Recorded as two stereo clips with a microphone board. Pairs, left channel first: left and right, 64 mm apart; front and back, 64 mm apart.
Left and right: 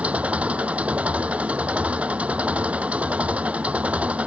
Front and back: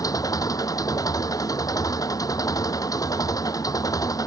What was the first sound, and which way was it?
An engine running, 20° right.